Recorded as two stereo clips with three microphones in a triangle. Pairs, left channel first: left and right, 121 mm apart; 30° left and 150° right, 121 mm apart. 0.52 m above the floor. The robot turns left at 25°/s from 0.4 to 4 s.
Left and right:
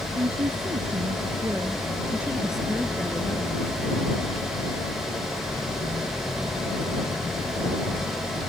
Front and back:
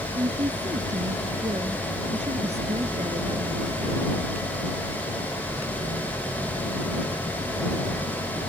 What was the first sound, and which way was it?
A woman speaking, 120° right.